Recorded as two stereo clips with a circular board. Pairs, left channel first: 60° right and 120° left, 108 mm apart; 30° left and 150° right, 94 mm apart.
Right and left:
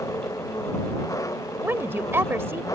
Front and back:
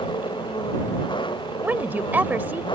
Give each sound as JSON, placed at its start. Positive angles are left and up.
{"t": 0.0, "sound": "an engine running", "azimuth_deg": 0}
{"t": 1.6, "sound": "a woman speaking", "azimuth_deg": 165}